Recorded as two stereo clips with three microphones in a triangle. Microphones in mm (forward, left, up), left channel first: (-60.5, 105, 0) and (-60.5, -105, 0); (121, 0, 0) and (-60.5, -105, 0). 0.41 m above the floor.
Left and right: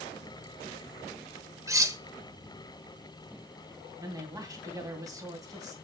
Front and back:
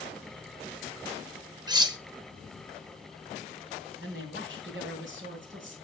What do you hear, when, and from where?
1.7 s cutlery clinking: 135° right, 0.6 m
4.0 s a man speaking: 165° right, 2.5 m